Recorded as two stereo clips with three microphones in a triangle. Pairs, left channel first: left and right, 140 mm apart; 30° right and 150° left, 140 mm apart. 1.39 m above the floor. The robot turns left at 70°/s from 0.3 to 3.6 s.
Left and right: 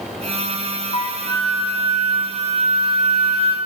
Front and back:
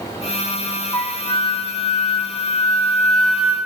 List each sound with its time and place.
0.9 s a flute: 50° left, 2.5 m; by 3.6 s 135° right, 2.5 m